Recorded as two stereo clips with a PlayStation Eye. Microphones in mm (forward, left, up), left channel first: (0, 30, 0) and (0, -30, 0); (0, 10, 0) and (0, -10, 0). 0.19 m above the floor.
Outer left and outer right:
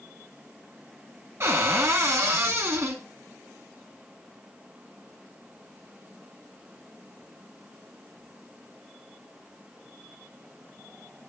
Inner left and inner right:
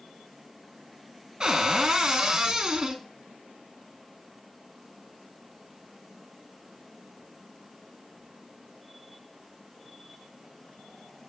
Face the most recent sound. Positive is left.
turn(degrees=-50)  # may be behind; listen again after turning